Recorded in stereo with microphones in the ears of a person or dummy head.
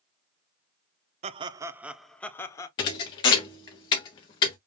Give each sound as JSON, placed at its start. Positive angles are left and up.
{"t": 1.2, "sound": "laughter", "side_deg": -35, "distance_m": 0.8}
{"t": 2.8, "sound": "a thud", "side_deg": 25, "distance_m": 0.9}